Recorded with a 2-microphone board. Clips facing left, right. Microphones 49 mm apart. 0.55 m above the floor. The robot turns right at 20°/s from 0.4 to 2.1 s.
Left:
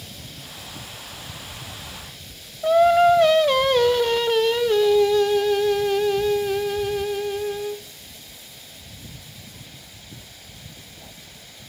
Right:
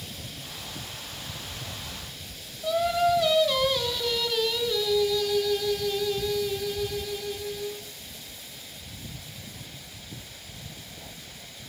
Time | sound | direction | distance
2.6 | singing | 45° left (ahead or behind) | 0.6 m